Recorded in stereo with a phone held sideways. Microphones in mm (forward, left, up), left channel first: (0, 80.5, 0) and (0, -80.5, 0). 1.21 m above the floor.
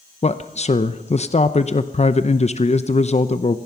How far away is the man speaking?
About 0.7 m.